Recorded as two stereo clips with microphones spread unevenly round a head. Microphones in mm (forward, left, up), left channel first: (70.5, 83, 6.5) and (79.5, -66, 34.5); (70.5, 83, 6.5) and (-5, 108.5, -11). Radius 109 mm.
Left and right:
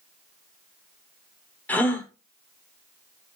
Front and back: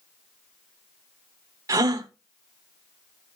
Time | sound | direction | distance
1.7 | a gasp | 175° right | 0.9 m